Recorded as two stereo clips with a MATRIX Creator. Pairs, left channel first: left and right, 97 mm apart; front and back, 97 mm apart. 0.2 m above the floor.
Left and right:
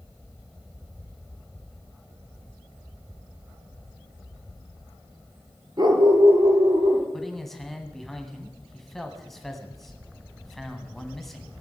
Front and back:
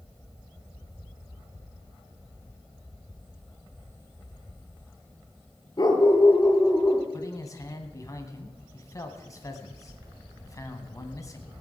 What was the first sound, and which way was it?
A dog barking, 45° right.